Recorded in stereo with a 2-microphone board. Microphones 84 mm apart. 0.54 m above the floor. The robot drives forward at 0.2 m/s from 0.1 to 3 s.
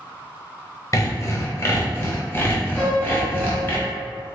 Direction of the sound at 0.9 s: 40° left (ahead or behind).